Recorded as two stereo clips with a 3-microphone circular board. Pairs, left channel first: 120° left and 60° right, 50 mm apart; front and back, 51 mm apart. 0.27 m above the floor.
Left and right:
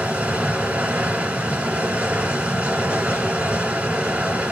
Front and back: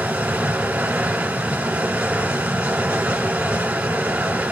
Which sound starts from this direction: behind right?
Running water, at 0.0 s.